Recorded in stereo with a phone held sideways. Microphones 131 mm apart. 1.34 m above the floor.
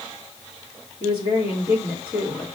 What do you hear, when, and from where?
1.0 s a woman speaking: 50° left (ahead or behind), 3 m